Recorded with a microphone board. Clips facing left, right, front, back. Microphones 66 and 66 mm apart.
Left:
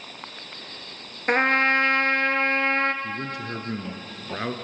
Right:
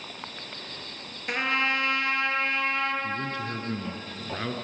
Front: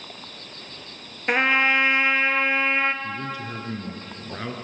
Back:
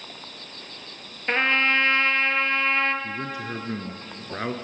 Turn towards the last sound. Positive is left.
turn(degrees=140)